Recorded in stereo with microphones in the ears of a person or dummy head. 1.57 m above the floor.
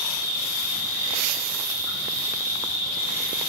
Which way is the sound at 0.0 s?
45° left (ahead or behind).